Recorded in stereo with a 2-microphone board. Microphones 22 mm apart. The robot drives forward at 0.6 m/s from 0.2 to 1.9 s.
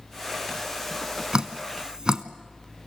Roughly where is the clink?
No clink in this recording.